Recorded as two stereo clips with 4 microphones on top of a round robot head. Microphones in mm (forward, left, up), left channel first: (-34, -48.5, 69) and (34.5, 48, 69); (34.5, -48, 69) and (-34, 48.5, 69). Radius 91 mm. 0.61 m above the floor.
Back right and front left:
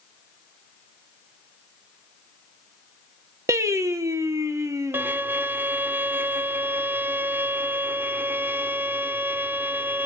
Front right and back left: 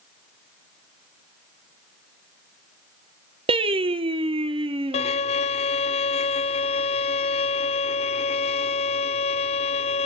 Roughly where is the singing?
Left.